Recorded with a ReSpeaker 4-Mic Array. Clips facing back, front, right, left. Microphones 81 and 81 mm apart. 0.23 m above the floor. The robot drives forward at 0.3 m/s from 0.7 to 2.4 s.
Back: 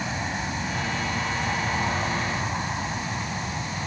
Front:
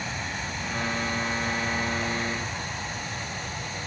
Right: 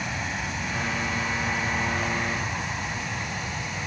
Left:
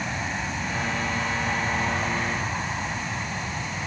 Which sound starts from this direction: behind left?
An aircraft, at 0.0 s.